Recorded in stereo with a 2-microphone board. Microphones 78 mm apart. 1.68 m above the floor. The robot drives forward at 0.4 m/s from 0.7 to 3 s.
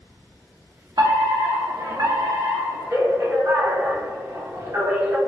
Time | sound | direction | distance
1.0 | a fire alarm | 55° right (ahead or behind) | 0.9 m